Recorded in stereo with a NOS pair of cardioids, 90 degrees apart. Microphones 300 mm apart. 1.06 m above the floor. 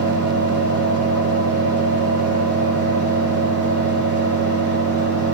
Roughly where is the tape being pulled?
I don't hear tape being pulled.